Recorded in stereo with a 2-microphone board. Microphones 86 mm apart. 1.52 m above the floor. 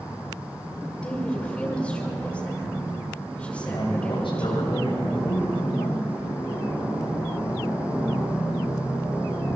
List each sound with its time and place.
1.0 s a woman speaking: 15° left (ahead or behind), 5.5 m
3.6 s a man speaking: 70° left (ahead or behind), 8 m